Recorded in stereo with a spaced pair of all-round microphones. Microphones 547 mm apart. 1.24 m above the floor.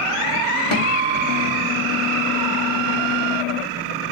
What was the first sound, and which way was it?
A guitar, 70° left (ahead or behind).